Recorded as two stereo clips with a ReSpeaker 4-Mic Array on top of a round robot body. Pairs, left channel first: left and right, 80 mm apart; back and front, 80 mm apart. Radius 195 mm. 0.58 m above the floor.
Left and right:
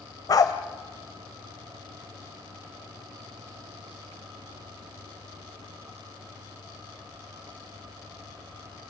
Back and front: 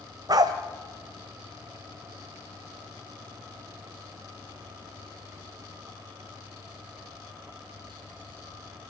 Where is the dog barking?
45° left, 1.1 m.